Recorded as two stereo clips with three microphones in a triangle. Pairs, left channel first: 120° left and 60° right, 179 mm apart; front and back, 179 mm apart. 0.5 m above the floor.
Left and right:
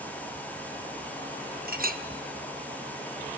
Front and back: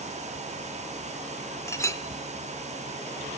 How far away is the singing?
No singing in this recording.